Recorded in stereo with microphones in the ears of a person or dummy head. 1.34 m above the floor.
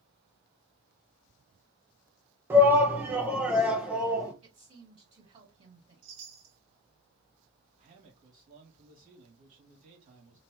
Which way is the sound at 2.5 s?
15° right (ahead or behind).